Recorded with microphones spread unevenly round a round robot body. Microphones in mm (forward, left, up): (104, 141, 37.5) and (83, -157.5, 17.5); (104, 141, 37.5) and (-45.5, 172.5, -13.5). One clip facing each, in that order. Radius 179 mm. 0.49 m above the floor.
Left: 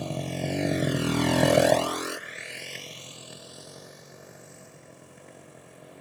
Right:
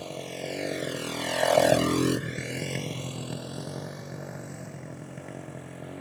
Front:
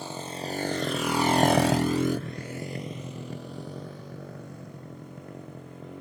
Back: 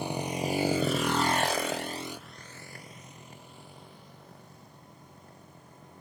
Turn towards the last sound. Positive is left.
turn(degrees=-70)